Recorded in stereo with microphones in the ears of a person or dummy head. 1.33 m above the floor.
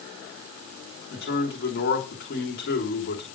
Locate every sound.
1.1 s a man speaking: 65° left (ahead or behind), 3 m